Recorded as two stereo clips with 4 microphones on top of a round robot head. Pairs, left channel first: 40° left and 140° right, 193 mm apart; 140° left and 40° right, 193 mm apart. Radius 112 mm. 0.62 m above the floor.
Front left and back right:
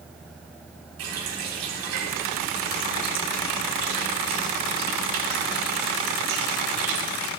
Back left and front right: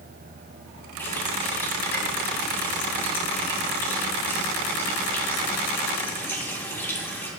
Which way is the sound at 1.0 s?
140° right.